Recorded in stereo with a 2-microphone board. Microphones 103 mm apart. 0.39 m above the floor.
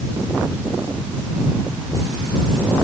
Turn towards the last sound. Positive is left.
No sound to turn to.